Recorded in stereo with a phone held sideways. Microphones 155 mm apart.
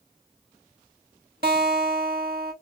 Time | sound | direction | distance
1.4 | a guitar | 75° right (ahead or behind) | 1.2 m